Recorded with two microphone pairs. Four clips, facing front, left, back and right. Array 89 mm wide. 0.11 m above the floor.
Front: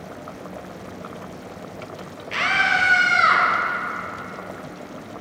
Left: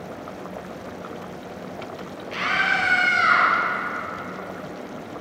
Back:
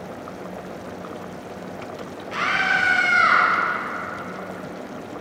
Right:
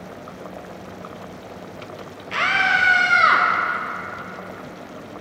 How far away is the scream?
About 2.5 m.